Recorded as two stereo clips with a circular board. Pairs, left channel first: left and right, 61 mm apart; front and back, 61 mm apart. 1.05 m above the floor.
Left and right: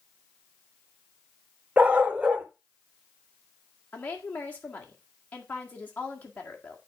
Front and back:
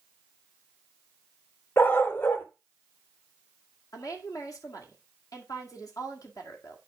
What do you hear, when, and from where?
1.8 s a dog barking: 35° right, 0.8 m
3.9 s a woman speaking: 25° left, 2.0 m